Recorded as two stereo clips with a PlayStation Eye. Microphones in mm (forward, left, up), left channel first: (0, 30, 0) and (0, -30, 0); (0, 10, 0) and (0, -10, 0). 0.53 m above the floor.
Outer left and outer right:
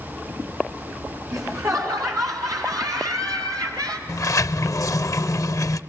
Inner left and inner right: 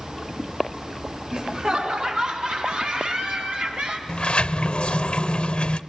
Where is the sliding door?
60° left (ahead or behind), 0.6 m.